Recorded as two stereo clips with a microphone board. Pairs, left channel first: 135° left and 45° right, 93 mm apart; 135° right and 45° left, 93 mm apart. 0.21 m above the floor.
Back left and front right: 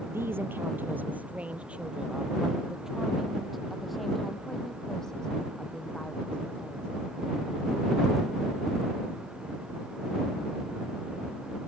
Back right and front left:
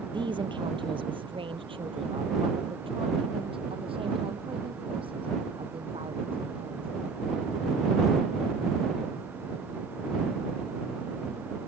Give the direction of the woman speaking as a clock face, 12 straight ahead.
11 o'clock.